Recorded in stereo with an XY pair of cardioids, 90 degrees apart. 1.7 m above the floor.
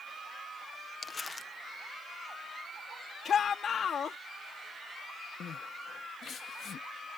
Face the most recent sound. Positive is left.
turn(degrees=65)